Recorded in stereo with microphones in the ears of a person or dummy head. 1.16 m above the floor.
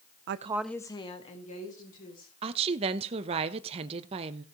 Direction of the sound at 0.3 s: 60° right (ahead or behind).